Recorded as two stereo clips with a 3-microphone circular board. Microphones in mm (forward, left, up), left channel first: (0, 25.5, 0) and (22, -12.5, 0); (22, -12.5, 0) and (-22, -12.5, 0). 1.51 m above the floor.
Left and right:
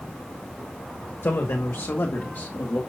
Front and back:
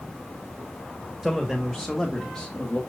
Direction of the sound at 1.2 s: 95° left.